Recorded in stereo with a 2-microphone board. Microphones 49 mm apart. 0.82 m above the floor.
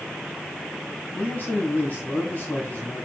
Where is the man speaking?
40° left (ahead or behind), 5 m.